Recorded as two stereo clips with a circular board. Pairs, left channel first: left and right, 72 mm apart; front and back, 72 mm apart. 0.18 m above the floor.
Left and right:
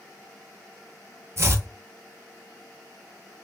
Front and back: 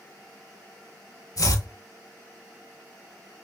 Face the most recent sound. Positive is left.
turn(degrees=-40)